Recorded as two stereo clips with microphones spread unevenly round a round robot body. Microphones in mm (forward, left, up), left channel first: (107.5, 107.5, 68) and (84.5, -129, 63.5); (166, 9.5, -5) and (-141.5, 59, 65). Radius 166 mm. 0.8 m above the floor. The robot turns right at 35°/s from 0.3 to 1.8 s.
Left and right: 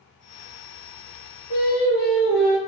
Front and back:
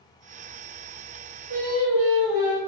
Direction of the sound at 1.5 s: 135° left.